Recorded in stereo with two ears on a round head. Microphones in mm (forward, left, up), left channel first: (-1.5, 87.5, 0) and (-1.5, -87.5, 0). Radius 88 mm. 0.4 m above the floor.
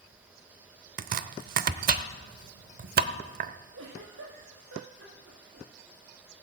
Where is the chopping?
45° right (ahead or behind), 0.7 m.